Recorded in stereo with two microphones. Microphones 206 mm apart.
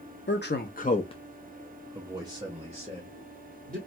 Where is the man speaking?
60° left (ahead or behind), 0.6 m; by 3.8 s 35° right (ahead or behind), 1.4 m.